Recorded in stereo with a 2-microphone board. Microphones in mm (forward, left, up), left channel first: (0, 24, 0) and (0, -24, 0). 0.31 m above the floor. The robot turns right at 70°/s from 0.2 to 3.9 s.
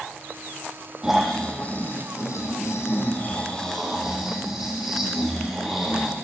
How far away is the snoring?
About 6 m.